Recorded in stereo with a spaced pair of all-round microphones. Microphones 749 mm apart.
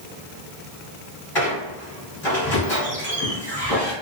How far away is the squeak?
About 1.2 m.